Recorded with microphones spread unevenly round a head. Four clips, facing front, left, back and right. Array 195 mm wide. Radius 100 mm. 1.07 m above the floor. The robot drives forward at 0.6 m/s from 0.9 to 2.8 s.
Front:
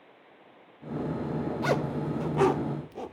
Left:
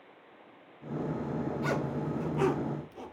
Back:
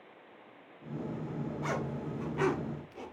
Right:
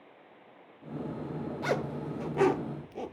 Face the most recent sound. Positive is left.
turn(degrees=-45)